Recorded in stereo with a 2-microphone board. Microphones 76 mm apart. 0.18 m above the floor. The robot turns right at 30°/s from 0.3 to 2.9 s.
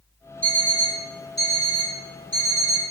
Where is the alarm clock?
25° right, 1.7 m; by 2.9 s 50° left, 1.7 m.